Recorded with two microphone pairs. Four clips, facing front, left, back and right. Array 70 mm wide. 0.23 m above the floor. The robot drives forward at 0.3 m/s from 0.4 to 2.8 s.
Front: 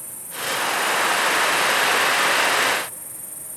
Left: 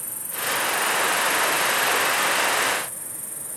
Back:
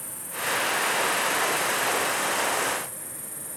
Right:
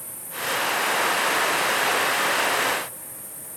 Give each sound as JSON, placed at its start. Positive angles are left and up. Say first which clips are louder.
{"t": 0.0, "sound": "an insect", "louder": "left 1 dB, front 1 dB", "azimuth_deg": 130, "distance_m": 2.0}